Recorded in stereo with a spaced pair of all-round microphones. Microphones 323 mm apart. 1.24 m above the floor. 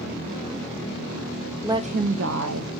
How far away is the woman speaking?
About 0.6 m.